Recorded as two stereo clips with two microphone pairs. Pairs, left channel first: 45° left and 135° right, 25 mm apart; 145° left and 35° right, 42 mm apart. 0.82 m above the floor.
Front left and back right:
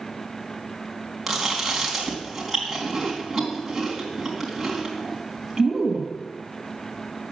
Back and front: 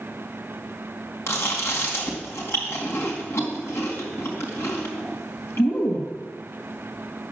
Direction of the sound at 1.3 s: 140° left.